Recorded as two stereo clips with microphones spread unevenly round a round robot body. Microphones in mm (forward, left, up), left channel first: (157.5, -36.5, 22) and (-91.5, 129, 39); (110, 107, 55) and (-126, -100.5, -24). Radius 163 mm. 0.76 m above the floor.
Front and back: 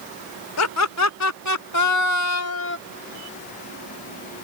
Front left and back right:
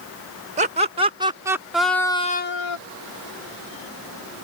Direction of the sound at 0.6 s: 75° right.